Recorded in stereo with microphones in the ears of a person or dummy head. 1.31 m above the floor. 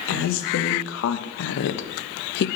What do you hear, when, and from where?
0.1 s a woman speaking: 85° left, 2 m; by 2.5 s 65° left (ahead or behind), 1.0 m